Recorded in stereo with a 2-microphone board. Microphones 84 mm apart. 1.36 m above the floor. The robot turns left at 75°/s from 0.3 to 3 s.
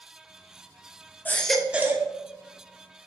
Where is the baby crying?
25° left, 1.1 m; by 2.1 s 40° right, 1.1 m.